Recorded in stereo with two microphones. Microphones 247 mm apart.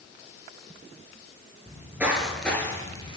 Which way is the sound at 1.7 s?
15° right (ahead or behind).